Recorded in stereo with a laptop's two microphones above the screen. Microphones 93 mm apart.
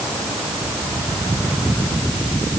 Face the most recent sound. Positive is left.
No sound to turn to.